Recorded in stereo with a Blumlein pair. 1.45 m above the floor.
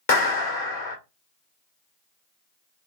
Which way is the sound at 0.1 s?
50° left.